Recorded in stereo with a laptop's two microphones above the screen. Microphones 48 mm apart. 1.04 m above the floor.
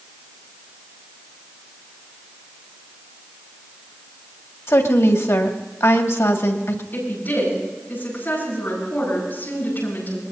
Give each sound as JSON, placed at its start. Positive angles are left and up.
{"t": 4.7, "sound": "a woman speaking", "side_deg": 65, "distance_m": 2.0}
{"t": 6.9, "sound": "a woman speaking", "side_deg": 40, "distance_m": 9.5}